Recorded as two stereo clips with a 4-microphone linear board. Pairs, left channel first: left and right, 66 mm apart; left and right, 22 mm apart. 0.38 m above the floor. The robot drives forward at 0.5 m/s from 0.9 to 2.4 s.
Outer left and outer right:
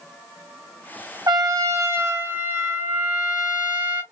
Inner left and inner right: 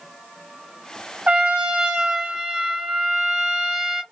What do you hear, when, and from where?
1.3 s a trumpet: 65° right (ahead or behind), 0.6 m; by 4.0 s 30° right (ahead or behind), 1.0 m